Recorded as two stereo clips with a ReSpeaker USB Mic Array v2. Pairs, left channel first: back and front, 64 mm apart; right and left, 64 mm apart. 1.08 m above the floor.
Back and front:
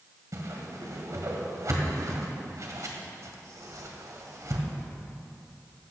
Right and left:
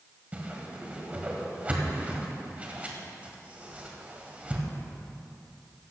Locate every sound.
0.3 s a whoosh: 25° left, 1.7 m